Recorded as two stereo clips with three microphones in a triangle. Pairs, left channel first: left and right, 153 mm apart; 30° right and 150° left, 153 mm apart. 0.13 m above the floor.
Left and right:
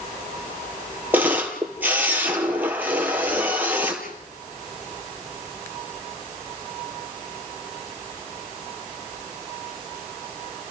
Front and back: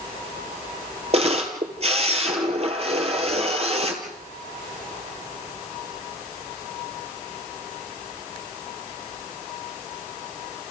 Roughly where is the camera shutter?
Behind.